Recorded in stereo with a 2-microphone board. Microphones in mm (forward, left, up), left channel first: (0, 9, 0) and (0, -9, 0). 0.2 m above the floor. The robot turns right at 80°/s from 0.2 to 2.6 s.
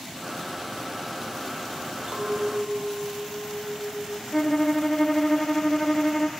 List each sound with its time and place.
2.1 s a clink: 70° right, 4.5 m; by 4.2 s 30° right, 4.5 m
4.3 s a violin: 40° left (ahead or behind), 2 m